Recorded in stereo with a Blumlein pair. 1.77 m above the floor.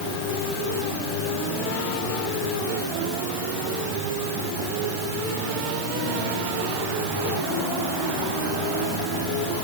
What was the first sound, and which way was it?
Only background noise.